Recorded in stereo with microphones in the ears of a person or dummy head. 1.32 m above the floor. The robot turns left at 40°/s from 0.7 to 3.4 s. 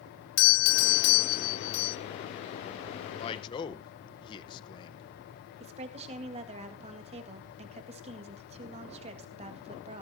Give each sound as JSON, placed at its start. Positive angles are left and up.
{"t": 0.4, "sound": "a doorbell", "azimuth_deg": 80, "distance_m": 0.9}
{"t": 3.2, "sound": "a man speaking", "side_deg": 35, "distance_m": 1.1}
{"t": 5.6, "sound": "a woman speaking", "side_deg": -35, "distance_m": 1.9}